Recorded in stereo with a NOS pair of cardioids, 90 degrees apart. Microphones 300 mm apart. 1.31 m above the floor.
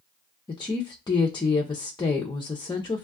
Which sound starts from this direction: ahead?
A woman speaking, at 0.5 s.